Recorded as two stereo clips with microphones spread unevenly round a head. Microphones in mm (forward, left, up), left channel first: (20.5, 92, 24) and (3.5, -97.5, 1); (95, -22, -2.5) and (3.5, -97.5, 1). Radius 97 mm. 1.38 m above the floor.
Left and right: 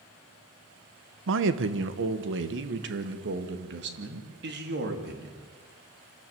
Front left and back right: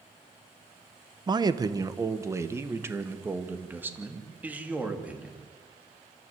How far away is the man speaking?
About 1.3 m.